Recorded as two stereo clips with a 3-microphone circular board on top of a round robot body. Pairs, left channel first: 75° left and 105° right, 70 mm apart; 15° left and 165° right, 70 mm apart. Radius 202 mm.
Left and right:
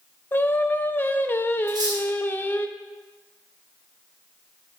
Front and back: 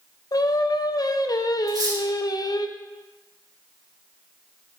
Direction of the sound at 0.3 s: 20° left.